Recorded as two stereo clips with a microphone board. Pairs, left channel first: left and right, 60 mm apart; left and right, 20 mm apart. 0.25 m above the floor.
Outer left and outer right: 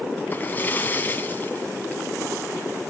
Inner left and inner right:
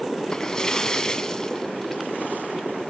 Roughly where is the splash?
Left.